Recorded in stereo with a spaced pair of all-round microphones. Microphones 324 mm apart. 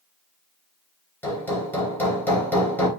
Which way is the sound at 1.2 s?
5° left (ahead or behind).